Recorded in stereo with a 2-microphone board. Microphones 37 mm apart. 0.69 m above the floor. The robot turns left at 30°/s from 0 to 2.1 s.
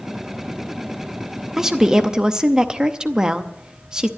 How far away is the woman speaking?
About 0.7 m.